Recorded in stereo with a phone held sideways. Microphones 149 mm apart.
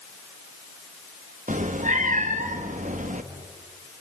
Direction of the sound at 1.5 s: 60° right (ahead or behind).